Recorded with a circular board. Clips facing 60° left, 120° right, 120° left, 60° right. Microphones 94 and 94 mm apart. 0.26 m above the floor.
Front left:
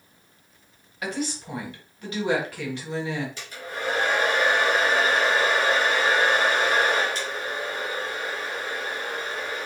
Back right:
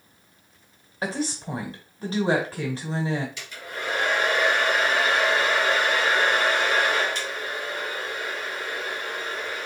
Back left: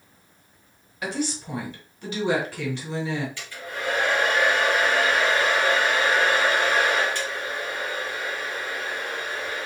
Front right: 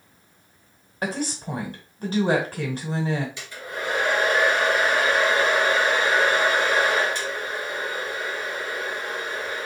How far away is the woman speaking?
About 1.4 m.